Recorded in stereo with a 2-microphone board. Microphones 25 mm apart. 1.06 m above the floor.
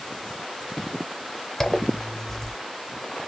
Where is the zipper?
15° left (ahead or behind), 0.7 m.